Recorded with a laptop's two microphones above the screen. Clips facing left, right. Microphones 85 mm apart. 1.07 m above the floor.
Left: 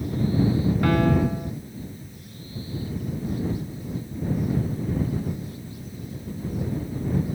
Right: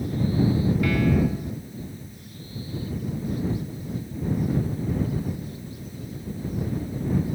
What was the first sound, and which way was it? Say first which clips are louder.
A piano: left 3 dB; 45° left (ahead or behind).